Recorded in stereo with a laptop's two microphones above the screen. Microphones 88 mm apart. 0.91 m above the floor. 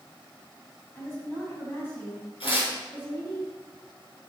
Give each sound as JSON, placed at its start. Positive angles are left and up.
{"t": 0.9, "sound": "a woman speaking", "side_deg": 25, "distance_m": 5.0}
{"t": 2.4, "sound": "tearing paper", "side_deg": 75, "distance_m": 6.0}